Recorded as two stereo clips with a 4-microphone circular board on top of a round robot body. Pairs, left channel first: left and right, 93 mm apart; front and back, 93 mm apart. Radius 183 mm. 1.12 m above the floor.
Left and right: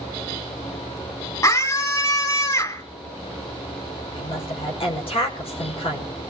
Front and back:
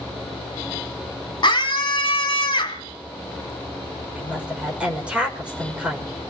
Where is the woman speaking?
105° left, 5.5 m.